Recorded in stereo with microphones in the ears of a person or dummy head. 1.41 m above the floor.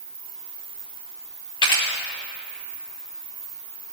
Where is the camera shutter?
25° left (ahead or behind), 1.2 m.